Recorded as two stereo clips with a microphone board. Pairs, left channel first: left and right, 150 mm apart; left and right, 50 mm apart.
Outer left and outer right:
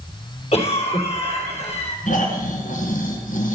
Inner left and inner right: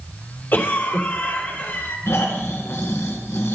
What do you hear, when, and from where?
0.5 s a cough: 45° left (ahead or behind), 2.5 m
2.1 s snoring: 60° left (ahead or behind), 2 m